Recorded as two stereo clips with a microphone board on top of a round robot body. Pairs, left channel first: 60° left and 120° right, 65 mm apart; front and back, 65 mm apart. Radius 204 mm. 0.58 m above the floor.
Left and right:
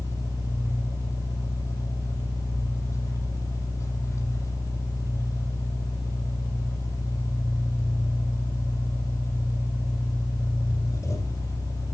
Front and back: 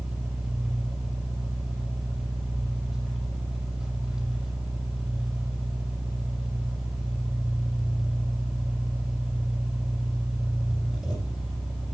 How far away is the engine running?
About 7.5 m.